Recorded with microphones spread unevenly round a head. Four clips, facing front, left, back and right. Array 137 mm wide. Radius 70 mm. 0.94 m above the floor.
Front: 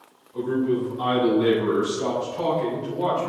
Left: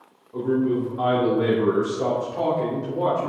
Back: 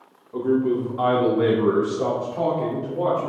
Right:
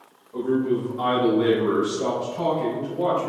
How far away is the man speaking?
About 2.5 m.